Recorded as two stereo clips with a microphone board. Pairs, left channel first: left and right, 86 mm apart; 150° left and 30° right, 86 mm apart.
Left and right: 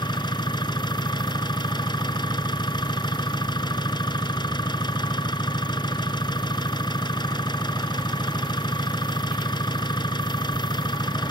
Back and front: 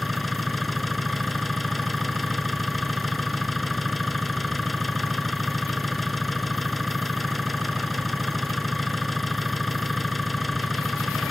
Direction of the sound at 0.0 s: 60° left.